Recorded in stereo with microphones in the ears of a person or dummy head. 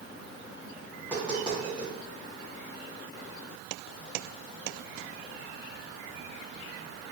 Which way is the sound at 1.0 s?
5° left (ahead or behind).